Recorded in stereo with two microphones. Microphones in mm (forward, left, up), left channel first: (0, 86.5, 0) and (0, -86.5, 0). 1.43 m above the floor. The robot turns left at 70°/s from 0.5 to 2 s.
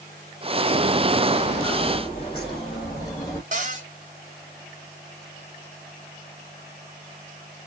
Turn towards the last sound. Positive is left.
turn(degrees=-45)  # may be behind; listen again after turning